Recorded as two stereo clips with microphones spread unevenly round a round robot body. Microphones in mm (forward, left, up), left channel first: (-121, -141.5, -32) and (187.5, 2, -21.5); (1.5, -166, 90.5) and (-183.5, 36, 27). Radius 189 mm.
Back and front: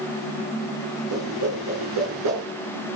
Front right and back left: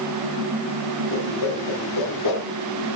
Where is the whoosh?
10° right, 4 m.